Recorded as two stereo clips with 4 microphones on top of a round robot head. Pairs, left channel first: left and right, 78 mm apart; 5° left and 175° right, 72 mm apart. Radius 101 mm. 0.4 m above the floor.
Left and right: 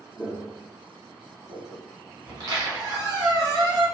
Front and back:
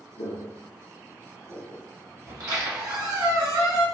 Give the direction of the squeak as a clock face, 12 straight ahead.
4 o'clock.